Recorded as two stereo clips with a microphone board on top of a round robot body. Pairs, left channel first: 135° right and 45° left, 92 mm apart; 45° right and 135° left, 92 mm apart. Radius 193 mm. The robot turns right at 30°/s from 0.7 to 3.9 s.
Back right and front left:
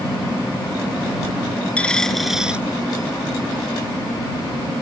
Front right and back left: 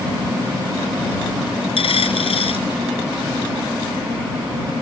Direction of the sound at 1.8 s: 60° right.